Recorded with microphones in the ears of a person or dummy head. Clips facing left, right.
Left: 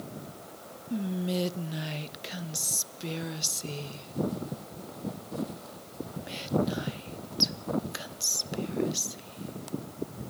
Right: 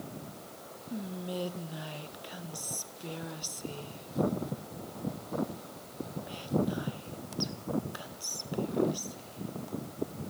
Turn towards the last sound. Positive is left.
turn(degrees=30)  # may be behind; listen again after turning